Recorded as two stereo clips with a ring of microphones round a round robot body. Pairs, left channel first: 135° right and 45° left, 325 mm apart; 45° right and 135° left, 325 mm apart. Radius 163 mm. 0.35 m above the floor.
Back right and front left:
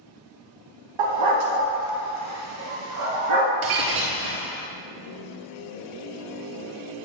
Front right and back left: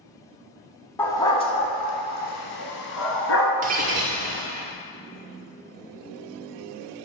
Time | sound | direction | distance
1.0 | a dog barking | 40° left | 1.2 m
3.6 | breaking glass | 70° left | 1.4 m